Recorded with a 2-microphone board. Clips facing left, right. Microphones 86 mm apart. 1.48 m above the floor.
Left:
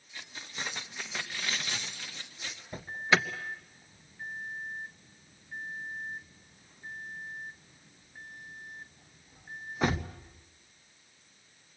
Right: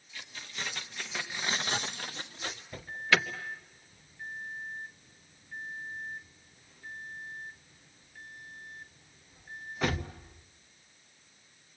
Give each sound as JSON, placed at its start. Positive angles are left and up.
{"t": 0.1, "sound": "keys jangling", "side_deg": 25, "distance_m": 2.0}
{"t": 2.7, "sound": "an alarm", "side_deg": 20, "distance_m": 1.1}